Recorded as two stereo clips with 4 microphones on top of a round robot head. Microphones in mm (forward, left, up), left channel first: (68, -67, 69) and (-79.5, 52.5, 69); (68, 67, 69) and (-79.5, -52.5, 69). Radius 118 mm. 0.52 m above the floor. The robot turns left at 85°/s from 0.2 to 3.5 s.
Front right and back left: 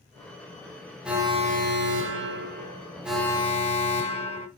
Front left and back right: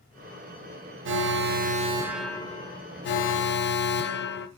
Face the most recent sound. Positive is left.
turn(degrees=20)